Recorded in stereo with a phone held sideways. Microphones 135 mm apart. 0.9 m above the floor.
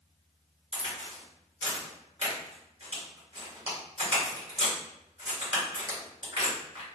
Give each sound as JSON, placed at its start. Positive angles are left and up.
{"t": 0.7, "sound": "a crack", "side_deg": -40, "distance_m": 1.8}